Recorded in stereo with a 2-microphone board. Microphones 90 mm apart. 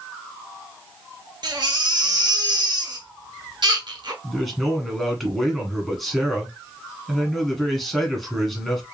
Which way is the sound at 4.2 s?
Centre (ahead or behind).